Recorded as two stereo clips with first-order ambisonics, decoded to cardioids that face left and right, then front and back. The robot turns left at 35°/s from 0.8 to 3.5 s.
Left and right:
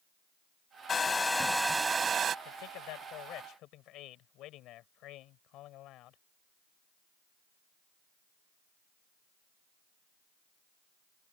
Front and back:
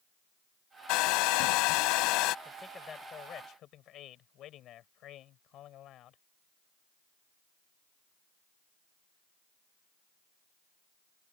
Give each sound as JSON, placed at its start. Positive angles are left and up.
{"t": 0.9, "sound": "a hair dryer", "azimuth_deg": 20}
{"t": 2.5, "sound": "a man speaking", "azimuth_deg": 85}